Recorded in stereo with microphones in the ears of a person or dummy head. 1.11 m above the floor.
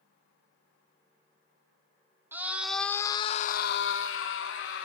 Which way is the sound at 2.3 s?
10° right (ahead or behind).